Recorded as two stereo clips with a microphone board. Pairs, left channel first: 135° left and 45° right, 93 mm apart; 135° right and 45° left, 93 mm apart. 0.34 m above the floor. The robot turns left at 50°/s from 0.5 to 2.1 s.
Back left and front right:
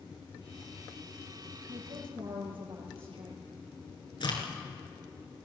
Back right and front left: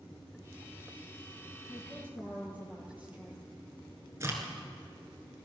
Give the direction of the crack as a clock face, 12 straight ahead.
9 o'clock.